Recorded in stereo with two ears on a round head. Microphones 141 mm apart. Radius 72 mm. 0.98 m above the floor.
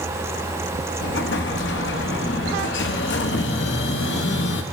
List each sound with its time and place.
1.0 s an explosion: 80° left, 0.8 m